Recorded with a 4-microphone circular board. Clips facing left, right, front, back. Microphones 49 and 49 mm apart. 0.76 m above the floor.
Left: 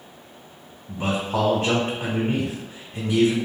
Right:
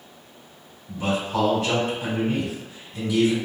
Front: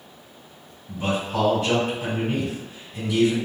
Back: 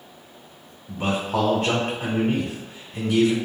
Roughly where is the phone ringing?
I don't hear a phone ringing.